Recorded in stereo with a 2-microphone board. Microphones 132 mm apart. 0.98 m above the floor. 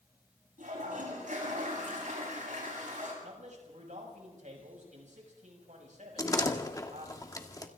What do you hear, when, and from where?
0.6 s a toilet flushing: 75° right (ahead or behind), 9 m
3.2 s a man speaking: 65° right (ahead or behind), 6.5 m
6.2 s a door slam: 25° left (ahead or behind), 1.7 m